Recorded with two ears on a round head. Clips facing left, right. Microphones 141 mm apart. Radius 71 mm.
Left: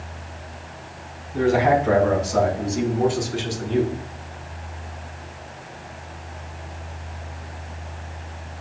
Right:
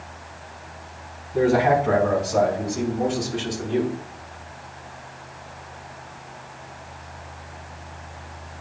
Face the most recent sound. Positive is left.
turn(degrees=40)  # may be behind; listen again after turning